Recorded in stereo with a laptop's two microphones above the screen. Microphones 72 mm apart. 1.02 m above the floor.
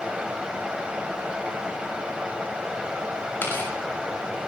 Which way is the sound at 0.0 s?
15° right (ahead or behind).